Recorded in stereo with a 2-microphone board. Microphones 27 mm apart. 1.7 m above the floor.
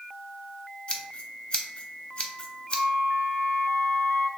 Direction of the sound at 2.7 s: 80° left.